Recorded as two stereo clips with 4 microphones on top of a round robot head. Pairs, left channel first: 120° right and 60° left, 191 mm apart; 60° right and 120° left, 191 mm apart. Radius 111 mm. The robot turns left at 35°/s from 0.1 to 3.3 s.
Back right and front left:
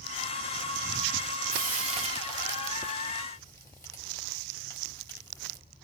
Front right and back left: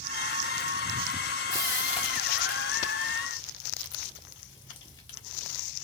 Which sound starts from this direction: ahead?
Frying, at 1.5 s.